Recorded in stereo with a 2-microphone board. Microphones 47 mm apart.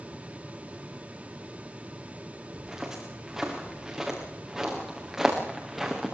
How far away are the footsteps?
About 7 m.